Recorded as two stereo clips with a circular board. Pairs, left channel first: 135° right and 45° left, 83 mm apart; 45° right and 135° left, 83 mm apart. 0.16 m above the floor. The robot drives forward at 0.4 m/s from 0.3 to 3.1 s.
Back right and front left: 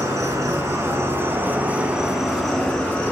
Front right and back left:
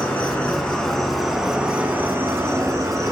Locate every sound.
0.0 s an insect: 25° left, 0.9 m; by 3.1 s 155° left, 0.8 m